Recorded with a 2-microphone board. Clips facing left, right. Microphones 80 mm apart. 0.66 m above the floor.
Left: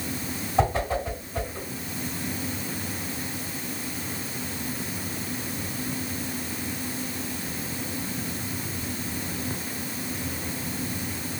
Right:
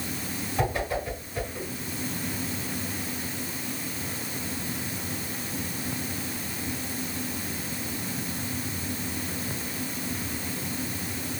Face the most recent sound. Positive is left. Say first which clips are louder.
# left 4 dB
turn(degrees=30)  # may be behind; listen again after turning